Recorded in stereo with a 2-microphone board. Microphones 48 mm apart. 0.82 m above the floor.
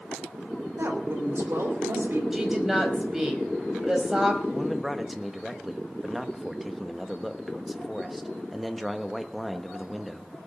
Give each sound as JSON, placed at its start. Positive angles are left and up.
{"t": 0.8, "sound": "a woman speaking", "side_deg": -60, "distance_m": 3.0}
{"t": 2.3, "sound": "a woman speaking", "side_deg": -5, "distance_m": 4.0}
{"t": 4.5, "sound": "a man speaking", "side_deg": 0, "distance_m": 1.1}